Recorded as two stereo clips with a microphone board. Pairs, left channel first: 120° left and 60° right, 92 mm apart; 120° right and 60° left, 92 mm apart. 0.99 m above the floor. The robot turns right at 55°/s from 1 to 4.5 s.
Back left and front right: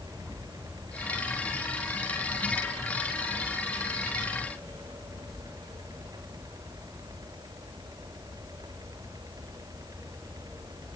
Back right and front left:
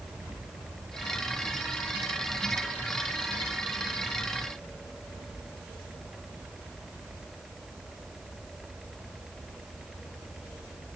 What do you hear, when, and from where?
Only background noise.